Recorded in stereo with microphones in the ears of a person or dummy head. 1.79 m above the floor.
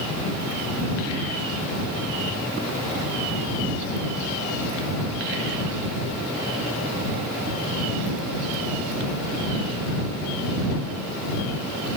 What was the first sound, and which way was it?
Only background noise.